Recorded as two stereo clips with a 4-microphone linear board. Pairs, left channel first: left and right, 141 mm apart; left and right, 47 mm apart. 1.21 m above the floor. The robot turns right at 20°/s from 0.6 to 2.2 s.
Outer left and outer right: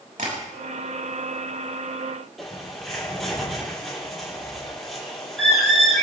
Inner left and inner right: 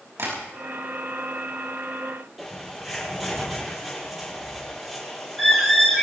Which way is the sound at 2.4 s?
Centre (ahead or behind).